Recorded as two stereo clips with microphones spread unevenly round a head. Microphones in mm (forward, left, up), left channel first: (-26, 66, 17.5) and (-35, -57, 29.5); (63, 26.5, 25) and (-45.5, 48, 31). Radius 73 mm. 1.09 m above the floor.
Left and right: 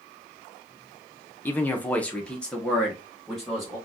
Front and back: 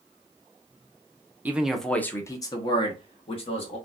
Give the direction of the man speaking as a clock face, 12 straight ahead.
8 o'clock.